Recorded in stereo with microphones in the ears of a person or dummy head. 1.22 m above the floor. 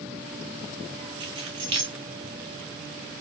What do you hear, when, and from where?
1.2 s keys jangling: 25° right (ahead or behind), 0.8 m